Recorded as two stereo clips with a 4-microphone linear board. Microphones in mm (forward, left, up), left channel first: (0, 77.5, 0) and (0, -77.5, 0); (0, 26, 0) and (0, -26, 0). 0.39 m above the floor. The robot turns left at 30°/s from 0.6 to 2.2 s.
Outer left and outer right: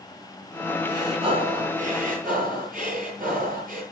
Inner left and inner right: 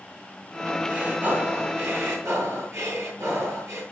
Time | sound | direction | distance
0.9 | breathing | 25° right | 8 m